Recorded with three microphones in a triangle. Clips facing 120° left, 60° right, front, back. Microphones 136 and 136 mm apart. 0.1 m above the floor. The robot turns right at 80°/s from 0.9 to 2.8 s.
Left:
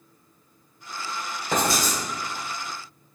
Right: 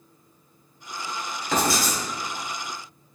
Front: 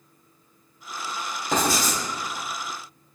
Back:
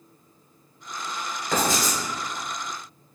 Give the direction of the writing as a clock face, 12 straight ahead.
10 o'clock.